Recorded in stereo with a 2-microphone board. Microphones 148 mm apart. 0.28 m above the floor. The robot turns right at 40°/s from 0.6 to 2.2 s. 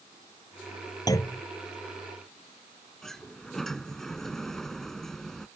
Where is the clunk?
25° left (ahead or behind); by 1.4 s 10° left (ahead or behind).